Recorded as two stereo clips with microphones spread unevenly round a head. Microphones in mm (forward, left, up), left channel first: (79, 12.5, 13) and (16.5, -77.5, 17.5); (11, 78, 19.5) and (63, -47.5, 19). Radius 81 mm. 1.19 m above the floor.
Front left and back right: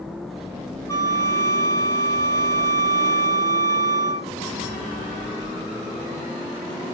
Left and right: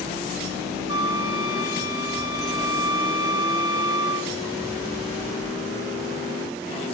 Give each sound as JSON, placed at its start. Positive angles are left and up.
{"t": 0.9, "sound": "a flute", "azimuth_deg": -5, "distance_m": 1.3}